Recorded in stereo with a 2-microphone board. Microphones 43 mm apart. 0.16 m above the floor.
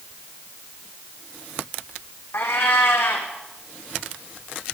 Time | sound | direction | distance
2.3 | a cat meowing | 65° left (ahead or behind) | 2.5 m